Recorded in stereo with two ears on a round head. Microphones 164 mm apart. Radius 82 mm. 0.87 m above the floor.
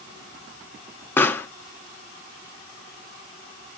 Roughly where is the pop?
Centre.